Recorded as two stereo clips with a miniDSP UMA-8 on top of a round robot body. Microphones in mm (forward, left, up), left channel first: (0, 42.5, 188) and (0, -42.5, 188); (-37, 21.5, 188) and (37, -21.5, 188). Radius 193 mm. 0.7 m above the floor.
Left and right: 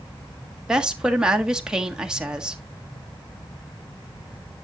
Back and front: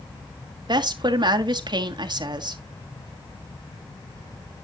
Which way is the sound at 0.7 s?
10° right.